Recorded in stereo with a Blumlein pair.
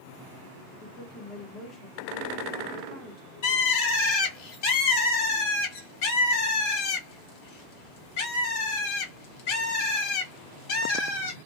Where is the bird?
45° left, 1.6 m.